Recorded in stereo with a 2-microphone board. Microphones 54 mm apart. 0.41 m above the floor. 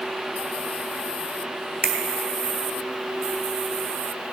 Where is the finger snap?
40° right (ahead or behind), 1.7 m.